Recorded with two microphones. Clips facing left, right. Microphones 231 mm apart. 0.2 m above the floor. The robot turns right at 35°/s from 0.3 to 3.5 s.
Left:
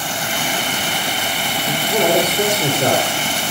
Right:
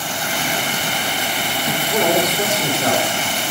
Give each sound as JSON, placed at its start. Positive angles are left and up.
{"t": 1.6, "sound": "a man speaking", "azimuth_deg": 10, "distance_m": 6.5}